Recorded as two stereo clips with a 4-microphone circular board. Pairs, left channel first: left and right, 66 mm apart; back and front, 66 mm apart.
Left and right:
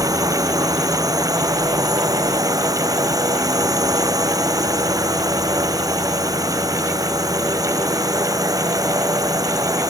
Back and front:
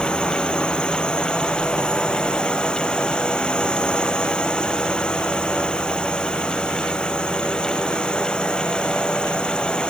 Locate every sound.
0.0 s a drone: 105° right